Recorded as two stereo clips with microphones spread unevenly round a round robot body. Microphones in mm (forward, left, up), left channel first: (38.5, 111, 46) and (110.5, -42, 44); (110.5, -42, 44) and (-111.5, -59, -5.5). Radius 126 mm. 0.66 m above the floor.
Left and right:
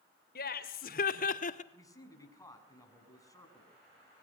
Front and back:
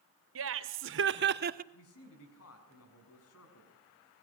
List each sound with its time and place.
0.3 s laughter: 160° left, 3 m; by 1.6 s 155° left, 1.2 m
1.7 s a man speaking: 45° left, 6.5 m